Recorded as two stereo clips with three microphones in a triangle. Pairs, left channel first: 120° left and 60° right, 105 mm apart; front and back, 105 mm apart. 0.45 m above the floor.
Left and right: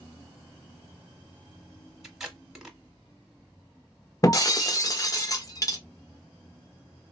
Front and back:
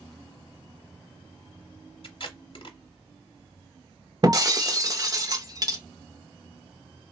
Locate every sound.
2.0 s tape being pulled: 25° left, 0.9 m
4.2 s breaking glass: 155° left, 0.6 m